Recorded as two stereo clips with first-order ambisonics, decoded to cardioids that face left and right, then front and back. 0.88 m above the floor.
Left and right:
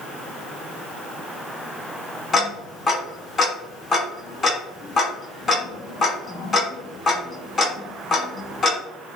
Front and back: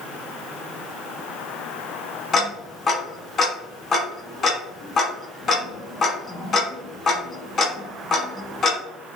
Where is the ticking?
30° left, 0.8 m.